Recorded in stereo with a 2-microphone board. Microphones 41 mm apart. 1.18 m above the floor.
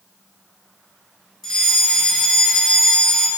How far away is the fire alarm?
About 3.5 m.